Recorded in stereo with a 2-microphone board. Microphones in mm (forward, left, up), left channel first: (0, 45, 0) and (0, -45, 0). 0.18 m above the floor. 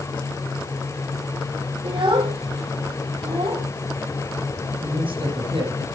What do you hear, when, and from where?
1.8 s a child speaking: 70° right (ahead or behind), 6 m; by 3.7 s 65° right (ahead or behind), 7 m
4.8 s a man speaking: 70° right (ahead or behind), 8 m